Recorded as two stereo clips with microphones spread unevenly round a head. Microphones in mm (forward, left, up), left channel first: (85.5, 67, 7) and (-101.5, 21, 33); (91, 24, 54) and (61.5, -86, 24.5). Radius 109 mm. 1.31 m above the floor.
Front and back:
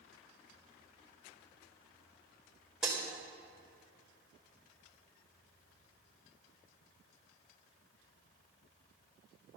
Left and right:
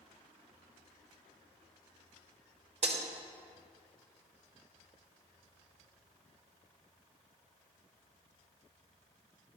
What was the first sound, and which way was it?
Breaking glass, 85° right.